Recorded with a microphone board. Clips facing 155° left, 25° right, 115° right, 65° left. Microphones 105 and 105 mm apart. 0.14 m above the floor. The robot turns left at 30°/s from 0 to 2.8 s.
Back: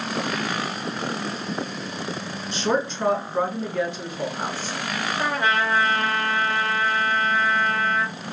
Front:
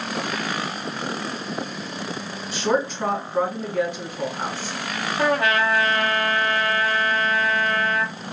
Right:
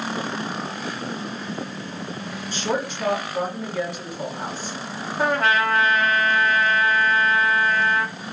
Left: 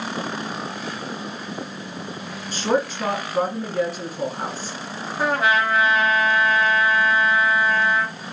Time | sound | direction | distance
2.5 | a woman speaking | 60° left | 2 m
5.2 | a trumpet | 20° right | 1.0 m